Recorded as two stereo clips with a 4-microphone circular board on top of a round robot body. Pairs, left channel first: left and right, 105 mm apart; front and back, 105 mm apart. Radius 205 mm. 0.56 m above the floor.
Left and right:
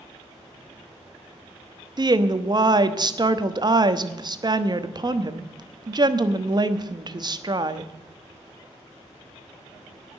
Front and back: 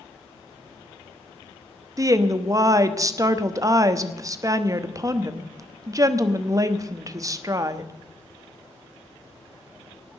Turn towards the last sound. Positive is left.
turn(degrees=-130)